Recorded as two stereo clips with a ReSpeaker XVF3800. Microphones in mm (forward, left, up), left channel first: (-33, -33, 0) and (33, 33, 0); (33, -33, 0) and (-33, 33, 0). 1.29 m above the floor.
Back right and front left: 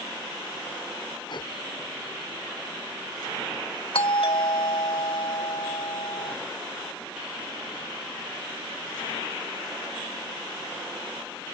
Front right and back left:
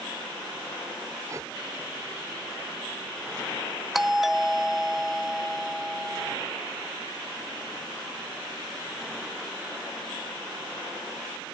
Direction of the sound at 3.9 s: 140° right.